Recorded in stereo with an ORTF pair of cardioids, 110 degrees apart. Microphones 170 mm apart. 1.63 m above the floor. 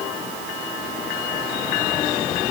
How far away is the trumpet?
I don't hear a trumpet.